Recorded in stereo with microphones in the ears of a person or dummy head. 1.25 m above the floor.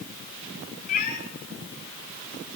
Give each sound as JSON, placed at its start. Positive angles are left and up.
{"t": 0.9, "sound": "a cat meowing", "side_deg": 50, "distance_m": 2.0}